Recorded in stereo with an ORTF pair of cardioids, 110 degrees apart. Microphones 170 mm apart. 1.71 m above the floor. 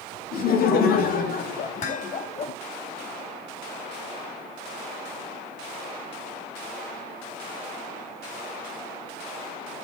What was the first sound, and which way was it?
Laughter, 65° left.